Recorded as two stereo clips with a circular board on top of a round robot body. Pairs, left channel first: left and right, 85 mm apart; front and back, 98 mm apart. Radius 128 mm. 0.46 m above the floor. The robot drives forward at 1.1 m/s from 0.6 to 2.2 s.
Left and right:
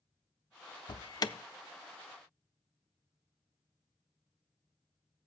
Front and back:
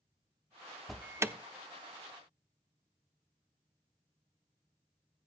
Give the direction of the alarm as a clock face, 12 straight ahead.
9 o'clock.